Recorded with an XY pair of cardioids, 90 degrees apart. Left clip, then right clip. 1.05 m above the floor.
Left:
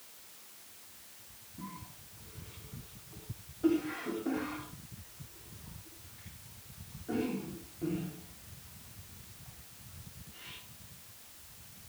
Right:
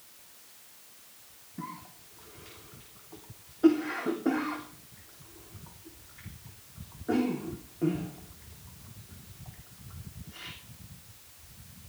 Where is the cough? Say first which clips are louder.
Right 6 dB; 70° right, 3 m.